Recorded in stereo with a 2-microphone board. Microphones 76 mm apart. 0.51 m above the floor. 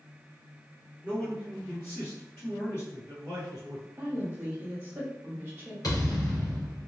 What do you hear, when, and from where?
1.0 s a man speaking: 15° left (ahead or behind), 1.6 m; by 3.9 s 45° left (ahead or behind), 1.6 m
4.0 s a woman speaking: 25° right (ahead or behind), 1.2 m
5.8 s a thud: 60° left (ahead or behind), 1.8 m